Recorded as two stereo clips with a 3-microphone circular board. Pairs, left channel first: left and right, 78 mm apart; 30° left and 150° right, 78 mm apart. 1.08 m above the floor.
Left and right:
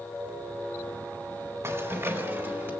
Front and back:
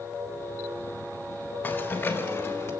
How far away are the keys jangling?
About 3.5 m.